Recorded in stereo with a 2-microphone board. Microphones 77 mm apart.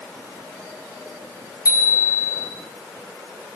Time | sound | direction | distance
1.6 | a bicycle bell | 45° left (ahead or behind) | 7.5 m